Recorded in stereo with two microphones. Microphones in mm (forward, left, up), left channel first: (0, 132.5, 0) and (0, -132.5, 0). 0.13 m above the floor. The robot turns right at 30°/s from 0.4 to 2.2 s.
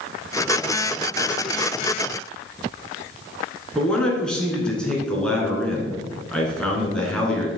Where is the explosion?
No explosion in this recording.